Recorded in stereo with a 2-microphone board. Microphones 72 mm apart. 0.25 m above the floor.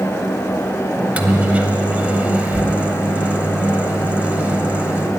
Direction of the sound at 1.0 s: 20° right (ahead or behind).